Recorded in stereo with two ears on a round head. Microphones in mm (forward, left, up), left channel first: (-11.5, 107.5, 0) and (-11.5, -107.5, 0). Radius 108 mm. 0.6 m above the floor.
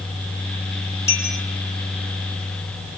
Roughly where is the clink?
Centre.